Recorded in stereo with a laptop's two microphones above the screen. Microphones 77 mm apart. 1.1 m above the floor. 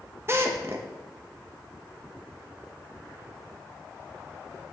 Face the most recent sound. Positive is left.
turn(degrees=-35)  # may be behind; listen again after turning